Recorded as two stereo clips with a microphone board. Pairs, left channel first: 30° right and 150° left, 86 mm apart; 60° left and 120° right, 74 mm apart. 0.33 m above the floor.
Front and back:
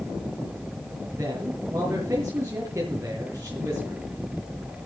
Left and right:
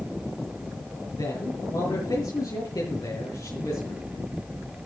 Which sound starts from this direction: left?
A man speaking, at 1.2 s.